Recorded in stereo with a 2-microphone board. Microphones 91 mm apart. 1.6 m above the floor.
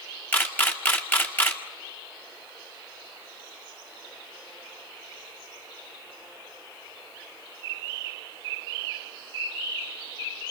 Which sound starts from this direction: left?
A camera shutter, at 0.3 s.